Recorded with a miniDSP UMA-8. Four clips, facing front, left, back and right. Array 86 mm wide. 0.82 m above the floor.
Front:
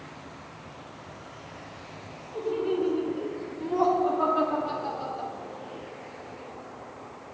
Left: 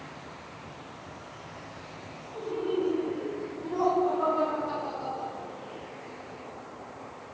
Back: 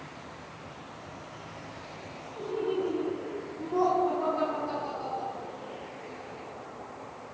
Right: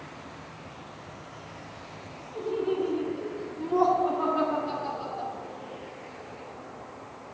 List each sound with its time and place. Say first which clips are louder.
2.4 s laughter: right 2 dB, front 3 dB; 15° right, 4 m